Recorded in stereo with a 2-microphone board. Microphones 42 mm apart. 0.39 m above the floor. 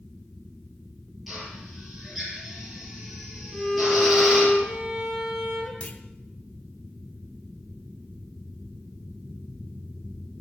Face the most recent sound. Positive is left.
turn(degrees=30)  # may be behind; listen again after turning